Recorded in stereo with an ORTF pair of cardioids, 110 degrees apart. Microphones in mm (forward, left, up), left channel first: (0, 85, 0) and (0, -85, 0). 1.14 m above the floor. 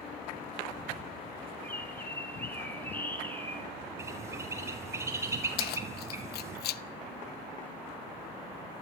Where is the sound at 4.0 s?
15° right, 4.5 m.